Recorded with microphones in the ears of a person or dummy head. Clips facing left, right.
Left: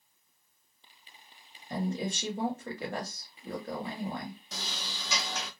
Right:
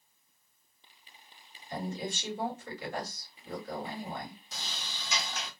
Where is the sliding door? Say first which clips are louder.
Left 3 dB; 55° left (ahead or behind), 1.0 m.